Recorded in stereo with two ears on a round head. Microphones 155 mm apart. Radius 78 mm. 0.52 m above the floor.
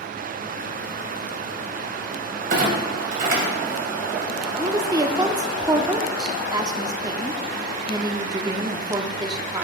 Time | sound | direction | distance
2.5 | a clunk | 55° right (ahead or behind) | 2.5 m
4.6 | a woman speaking | 20° right (ahead or behind) | 0.7 m